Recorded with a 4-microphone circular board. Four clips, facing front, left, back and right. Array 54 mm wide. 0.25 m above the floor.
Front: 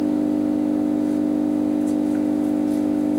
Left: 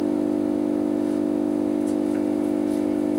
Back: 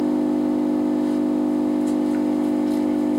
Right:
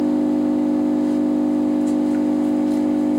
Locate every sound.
0.0 s an engine running: 145° right, 1.3 m